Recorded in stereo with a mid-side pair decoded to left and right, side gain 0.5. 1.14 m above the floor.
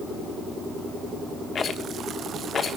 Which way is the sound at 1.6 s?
40° left.